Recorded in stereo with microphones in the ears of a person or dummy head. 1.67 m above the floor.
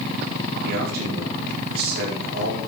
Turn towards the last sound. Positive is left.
turn(degrees=-55)  # may be behind; listen again after turning